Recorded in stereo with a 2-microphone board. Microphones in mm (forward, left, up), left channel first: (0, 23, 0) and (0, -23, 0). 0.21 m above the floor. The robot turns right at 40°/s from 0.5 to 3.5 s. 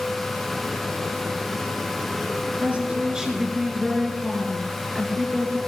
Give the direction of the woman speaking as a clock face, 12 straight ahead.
1 o'clock.